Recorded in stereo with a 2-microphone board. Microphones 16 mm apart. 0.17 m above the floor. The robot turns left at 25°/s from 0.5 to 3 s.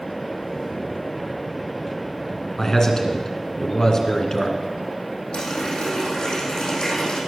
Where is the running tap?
55° left (ahead or behind), 4.5 m.